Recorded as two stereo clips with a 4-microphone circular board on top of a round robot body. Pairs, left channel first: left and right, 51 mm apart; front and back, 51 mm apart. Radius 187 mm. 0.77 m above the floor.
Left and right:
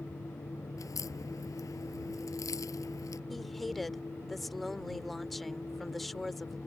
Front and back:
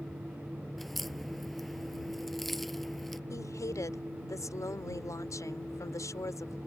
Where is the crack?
90° left.